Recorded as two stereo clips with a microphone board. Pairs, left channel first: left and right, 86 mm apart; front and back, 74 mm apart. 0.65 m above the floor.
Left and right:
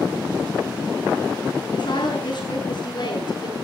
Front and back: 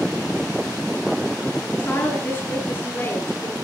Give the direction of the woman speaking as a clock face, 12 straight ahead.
10 o'clock.